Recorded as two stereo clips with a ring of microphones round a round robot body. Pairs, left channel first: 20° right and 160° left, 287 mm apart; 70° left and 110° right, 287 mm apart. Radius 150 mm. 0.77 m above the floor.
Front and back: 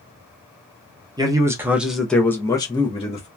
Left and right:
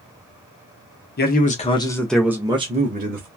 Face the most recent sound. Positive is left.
turn(degrees=-80)